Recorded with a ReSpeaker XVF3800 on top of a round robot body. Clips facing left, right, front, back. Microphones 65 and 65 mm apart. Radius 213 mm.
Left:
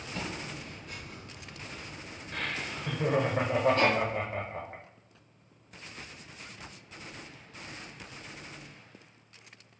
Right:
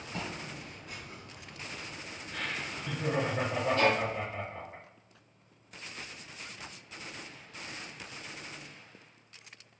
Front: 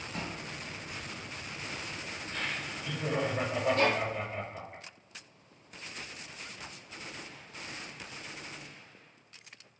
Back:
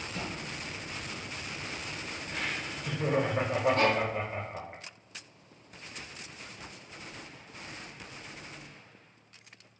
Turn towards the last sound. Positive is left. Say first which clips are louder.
# left 1 dB, even
turn(degrees=135)